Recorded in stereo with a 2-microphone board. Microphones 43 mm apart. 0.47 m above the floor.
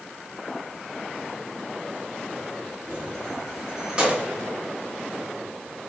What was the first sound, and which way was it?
Keys jangling, 25° left (ahead or behind).